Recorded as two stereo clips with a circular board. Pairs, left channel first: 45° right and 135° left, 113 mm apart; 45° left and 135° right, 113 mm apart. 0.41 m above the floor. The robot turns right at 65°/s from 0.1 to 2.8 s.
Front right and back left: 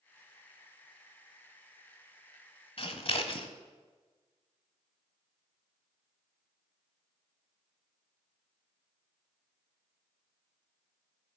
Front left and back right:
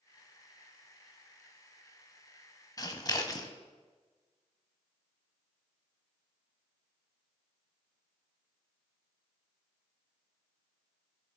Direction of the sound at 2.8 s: 10° right.